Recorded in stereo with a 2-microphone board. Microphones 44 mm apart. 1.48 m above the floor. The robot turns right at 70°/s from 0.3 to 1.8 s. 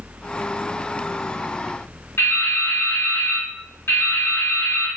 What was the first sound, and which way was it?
Dripping, 55° left (ahead or behind).